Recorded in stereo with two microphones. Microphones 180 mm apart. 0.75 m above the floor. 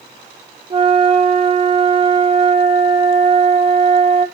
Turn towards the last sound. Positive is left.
turn(degrees=-30)  # may be behind; listen again after turning